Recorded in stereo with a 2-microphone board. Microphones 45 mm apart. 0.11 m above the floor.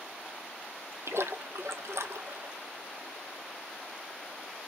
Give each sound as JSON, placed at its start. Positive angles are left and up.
{"t": 1.1, "sound": "a splash", "side_deg": -80, "distance_m": 0.6}